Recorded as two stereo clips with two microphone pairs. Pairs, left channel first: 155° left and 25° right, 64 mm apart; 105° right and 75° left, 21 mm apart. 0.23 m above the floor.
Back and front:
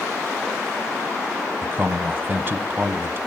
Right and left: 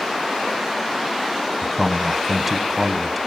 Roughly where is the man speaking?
Ahead.